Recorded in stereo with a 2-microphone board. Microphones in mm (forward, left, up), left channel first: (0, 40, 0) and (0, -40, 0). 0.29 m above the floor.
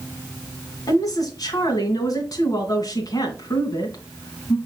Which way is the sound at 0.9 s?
50° left (ahead or behind).